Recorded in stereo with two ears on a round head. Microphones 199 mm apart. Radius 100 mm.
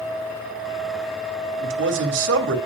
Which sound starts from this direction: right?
A man speaking, at 1.6 s.